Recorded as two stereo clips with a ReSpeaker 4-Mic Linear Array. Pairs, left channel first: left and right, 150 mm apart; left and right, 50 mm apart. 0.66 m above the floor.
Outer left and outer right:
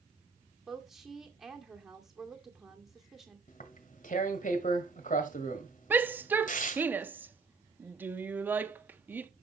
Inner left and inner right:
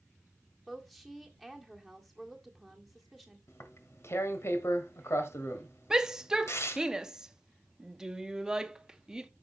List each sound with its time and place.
0.7 s a woman speaking: centre (ahead or behind), 2 m
3.5 s tearing paper: 60° left (ahead or behind), 1.4 m
5.9 s a shout: 15° right (ahead or behind), 0.8 m